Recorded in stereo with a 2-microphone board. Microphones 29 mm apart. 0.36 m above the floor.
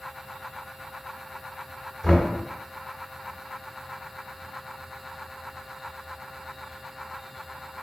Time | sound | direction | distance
2.0 | knocking | 15° right (ahead or behind) | 1.7 m